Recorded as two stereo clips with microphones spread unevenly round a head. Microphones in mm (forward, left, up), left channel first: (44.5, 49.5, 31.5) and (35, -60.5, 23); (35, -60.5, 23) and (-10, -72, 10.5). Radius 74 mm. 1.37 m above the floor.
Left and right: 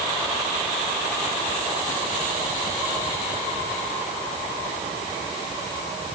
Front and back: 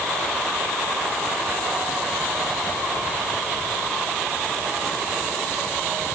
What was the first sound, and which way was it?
Only background noise.